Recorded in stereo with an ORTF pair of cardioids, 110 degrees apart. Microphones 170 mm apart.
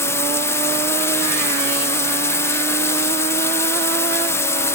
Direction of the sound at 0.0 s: 15° left.